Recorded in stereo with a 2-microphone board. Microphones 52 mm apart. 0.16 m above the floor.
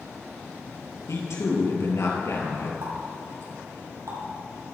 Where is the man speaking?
70° left (ahead or behind), 3 m.